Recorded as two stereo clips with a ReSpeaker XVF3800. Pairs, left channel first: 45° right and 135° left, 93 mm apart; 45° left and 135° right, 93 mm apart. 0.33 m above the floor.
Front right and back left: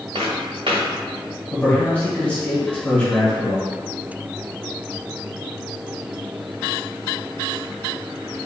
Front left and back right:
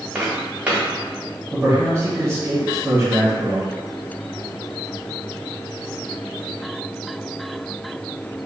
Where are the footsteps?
150° left, 1.9 m.